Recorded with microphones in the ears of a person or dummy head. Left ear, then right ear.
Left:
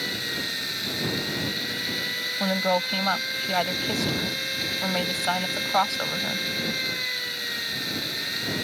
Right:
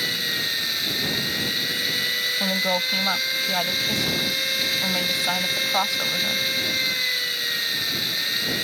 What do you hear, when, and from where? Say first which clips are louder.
0.0 s a machine running: right 5 dB; 25° right (ahead or behind)
2.4 s a woman speaking: right 2 dB; 10° left (ahead or behind)